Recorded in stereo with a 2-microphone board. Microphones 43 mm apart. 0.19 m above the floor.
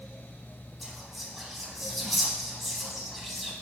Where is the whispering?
Centre (ahead or behind), 1.4 m.